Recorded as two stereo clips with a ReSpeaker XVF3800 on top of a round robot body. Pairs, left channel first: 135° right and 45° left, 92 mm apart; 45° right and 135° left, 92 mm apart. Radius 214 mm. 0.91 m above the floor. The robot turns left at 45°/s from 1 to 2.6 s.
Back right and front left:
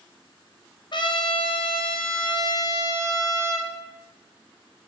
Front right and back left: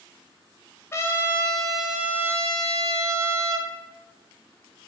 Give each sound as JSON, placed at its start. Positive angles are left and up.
{"t": 0.9, "sound": "a trumpet", "azimuth_deg": -105, "distance_m": 0.7}